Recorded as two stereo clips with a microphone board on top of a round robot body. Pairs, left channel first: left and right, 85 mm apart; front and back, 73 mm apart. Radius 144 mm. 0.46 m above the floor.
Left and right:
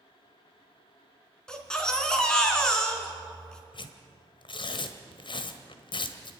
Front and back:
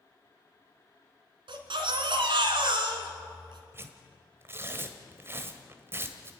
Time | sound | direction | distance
1.5 | a baby crying | 170° left | 2 m
3.7 | tearing paper | 120° left | 1.3 m